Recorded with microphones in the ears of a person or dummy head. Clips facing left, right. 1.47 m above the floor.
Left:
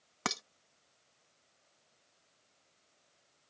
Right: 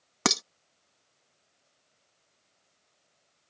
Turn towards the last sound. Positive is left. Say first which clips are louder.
# right 10 dB
turn(degrees=-65)  # may be behind; listen again after turning